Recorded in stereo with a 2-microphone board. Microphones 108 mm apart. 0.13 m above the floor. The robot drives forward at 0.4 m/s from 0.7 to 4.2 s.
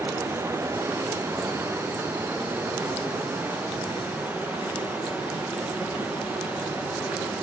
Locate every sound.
0.0 s running water: 25° right (ahead or behind), 2.5 m; by 7.4 s 15° right (ahead or behind), 4 m